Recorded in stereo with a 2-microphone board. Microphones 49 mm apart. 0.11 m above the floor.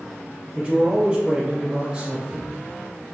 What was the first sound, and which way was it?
A man speaking, 20° right (ahead or behind).